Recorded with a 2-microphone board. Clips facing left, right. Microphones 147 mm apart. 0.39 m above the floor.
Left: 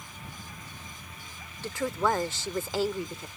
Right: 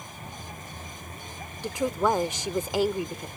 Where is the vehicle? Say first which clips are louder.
Right 4 dB; 45° right (ahead or behind); by 3.4 s 50° right (ahead or behind).